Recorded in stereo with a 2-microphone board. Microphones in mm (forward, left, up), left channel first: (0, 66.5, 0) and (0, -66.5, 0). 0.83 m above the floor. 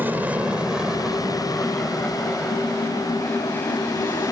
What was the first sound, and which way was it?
An aircraft, 15° right (ahead or behind).